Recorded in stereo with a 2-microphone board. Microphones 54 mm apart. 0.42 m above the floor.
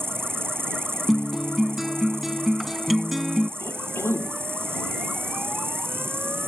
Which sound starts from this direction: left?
A cough, at 3.6 s.